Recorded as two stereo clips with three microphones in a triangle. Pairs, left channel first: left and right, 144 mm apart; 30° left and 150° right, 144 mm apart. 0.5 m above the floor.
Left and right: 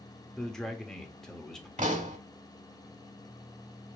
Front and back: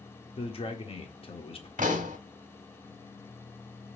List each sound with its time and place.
0.4 s a man speaking: 5° left, 1.0 m
1.8 s a pop: 125° right, 1.3 m